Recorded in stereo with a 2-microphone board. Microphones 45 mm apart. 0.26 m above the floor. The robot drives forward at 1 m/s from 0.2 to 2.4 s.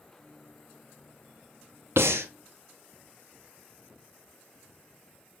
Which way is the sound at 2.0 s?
75° right (ahead or behind).